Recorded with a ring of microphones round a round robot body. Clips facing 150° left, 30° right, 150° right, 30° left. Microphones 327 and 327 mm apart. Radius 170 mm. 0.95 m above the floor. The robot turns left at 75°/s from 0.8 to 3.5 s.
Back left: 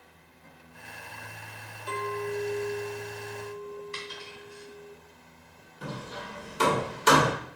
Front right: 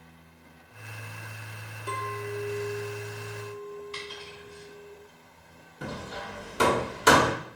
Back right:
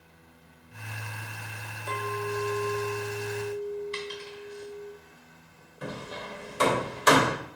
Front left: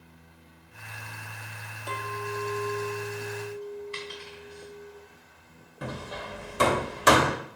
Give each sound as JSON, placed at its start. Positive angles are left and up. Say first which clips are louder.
{"t": 1.9, "sound": "a clink", "louder": "back left 3 dB, back right 4 dB", "azimuth_deg": 30, "distance_m": 1.2}
{"t": 3.9, "sound": "a dropped coin", "louder": "front right 1 dB, back right 4 dB", "azimuth_deg": -145, "distance_m": 3.0}
{"t": 5.8, "sound": "hammering", "louder": "front right 1 dB, even", "azimuth_deg": 10, "distance_m": 1.3}